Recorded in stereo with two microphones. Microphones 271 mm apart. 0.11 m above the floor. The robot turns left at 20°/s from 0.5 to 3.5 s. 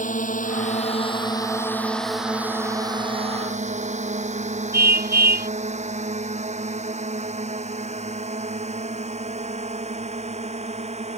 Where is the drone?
30° left (ahead or behind); by 11.2 s 25° right (ahead or behind).